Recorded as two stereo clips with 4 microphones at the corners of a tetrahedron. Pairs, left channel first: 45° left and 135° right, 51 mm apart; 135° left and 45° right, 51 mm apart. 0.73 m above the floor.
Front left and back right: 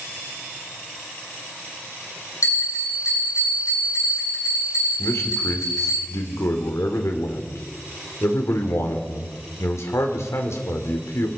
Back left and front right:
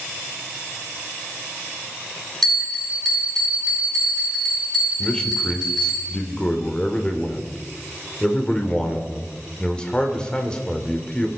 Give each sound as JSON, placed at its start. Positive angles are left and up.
{"t": 2.4, "sound": "a bell", "azimuth_deg": 50, "distance_m": 9.5}
{"t": 5.0, "sound": "a man speaking", "azimuth_deg": 65, "distance_m": 2.5}